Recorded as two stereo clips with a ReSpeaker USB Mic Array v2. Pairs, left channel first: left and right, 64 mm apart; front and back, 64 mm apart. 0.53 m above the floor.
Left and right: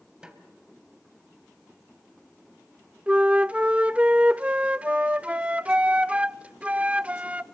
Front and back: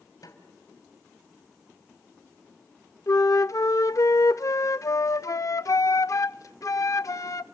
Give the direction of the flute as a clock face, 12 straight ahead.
1 o'clock.